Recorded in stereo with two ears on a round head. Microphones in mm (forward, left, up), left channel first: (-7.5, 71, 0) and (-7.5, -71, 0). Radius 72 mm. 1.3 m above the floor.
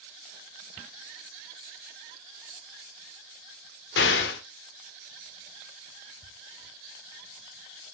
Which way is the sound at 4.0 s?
75° left (ahead or behind).